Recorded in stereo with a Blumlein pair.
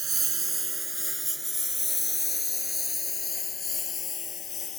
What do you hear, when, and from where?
0.0 s a lawn mower: 20° right; by 4.8 s 25° left